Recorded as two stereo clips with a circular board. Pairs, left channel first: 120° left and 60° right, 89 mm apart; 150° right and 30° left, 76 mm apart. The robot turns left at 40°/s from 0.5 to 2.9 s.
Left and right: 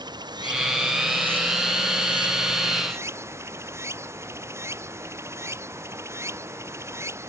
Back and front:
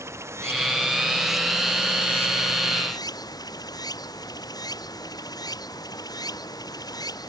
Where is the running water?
25° right; by 7.3 s 120° right.